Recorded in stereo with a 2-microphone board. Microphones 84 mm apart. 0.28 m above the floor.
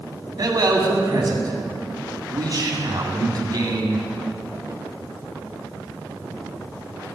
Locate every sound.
0.4 s a man speaking: 50° right (ahead or behind), 2 m